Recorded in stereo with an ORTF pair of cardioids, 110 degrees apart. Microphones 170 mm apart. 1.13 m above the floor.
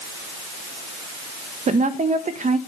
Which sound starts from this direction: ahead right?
A woman speaking, at 1.7 s.